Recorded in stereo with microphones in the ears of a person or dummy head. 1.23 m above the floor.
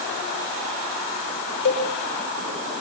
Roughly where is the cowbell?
Left.